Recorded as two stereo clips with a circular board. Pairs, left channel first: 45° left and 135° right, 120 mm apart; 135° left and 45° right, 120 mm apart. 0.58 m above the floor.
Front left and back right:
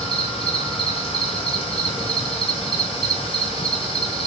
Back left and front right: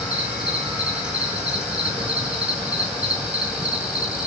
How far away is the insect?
About 0.7 m.